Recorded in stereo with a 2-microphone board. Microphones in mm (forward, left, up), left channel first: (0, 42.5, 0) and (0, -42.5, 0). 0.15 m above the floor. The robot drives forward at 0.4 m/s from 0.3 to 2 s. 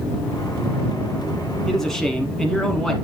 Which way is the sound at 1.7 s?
5° left (ahead or behind).